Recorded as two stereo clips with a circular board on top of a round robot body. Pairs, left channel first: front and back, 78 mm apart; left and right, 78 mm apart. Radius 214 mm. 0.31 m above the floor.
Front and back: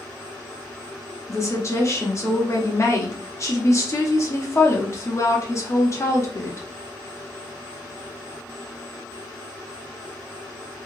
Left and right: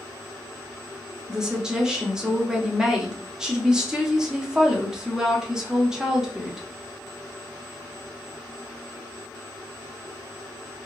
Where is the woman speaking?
15° right, 1.3 m.